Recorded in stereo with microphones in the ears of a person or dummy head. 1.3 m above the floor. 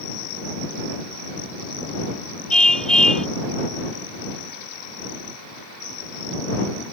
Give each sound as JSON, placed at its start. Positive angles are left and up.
{"t": 2.5, "sound": "a car horn", "side_deg": 0}